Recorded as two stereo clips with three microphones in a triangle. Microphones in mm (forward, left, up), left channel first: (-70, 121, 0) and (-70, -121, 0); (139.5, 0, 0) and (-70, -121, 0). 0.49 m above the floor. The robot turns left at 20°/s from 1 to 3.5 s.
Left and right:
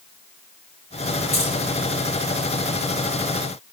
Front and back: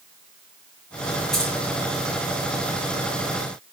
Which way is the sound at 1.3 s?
120° left.